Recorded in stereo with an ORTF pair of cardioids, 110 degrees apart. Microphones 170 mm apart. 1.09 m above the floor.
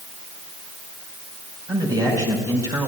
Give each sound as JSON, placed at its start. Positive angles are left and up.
{"t": 1.7, "sound": "a man speaking", "azimuth_deg": -25, "distance_m": 4.5}